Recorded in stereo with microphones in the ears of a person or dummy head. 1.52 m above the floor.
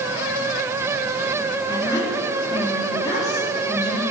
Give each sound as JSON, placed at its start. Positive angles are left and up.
{"t": 1.7, "sound": "a woman speaking", "side_deg": 20, "distance_m": 4.0}